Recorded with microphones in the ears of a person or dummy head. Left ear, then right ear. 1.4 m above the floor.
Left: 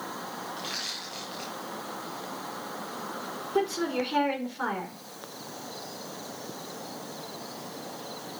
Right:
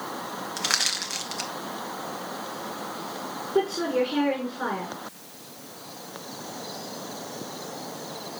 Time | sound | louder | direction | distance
0.6 | crushing | right 11 dB | 45° right (ahead or behind) | 1.0 m
3.5 | a woman speaking | right 4 dB | 25° left (ahead or behind) | 4 m